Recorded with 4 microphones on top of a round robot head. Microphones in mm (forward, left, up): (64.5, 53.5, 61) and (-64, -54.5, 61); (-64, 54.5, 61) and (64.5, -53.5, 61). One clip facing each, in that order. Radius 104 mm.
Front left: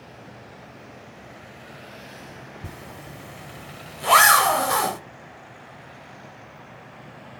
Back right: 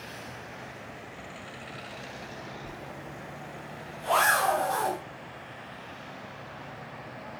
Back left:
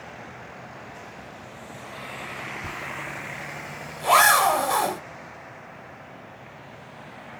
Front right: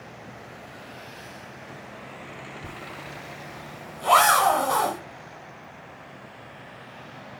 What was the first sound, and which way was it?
A zipper, 60° left.